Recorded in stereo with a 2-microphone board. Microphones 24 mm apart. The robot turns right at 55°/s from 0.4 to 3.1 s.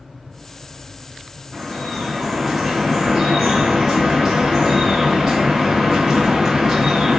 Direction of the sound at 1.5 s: 145° left.